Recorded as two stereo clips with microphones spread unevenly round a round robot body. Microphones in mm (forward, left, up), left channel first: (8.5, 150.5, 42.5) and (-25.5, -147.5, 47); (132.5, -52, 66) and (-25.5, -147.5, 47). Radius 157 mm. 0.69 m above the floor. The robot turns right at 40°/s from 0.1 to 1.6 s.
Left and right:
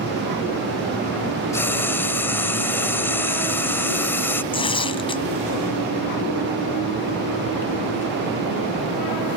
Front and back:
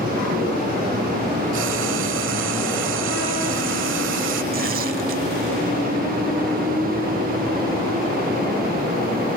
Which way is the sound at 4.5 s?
155° left.